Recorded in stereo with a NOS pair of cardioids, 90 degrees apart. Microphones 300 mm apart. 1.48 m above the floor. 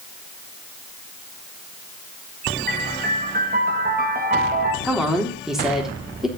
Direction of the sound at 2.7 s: 30° right.